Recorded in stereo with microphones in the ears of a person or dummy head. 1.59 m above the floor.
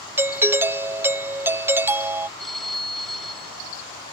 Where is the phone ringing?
Centre (ahead or behind).